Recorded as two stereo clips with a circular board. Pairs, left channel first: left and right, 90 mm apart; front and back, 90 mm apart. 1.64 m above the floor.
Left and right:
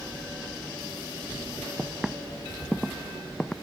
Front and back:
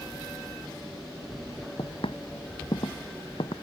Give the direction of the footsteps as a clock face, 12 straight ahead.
12 o'clock.